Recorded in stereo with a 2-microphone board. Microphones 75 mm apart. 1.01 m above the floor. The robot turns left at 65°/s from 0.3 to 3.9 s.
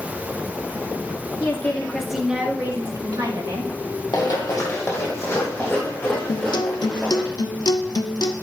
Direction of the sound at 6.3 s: 65° left (ahead or behind).